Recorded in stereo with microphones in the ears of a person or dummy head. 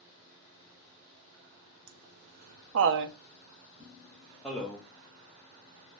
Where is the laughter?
65° right (ahead or behind), 0.8 m; by 4.8 s 5° left (ahead or behind), 1.0 m.